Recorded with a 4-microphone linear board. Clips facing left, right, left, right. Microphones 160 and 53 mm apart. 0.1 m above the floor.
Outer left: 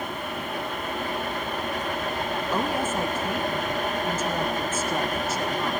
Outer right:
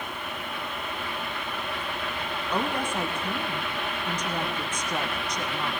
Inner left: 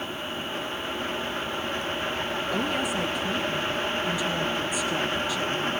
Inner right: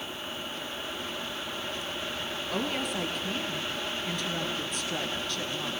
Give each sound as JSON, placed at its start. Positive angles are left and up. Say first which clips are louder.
{"t": 2.5, "sound": "a woman speaking", "louder": "outer left 1 dB, inner left 3 dB", "side_deg": 5, "distance_m": 1.7}